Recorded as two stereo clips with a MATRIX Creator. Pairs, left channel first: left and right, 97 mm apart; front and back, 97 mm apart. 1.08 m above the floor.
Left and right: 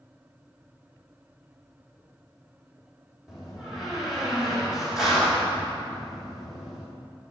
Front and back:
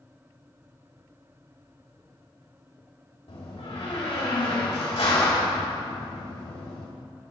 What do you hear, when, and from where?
3.3 s a door slam: 5° right, 1.9 m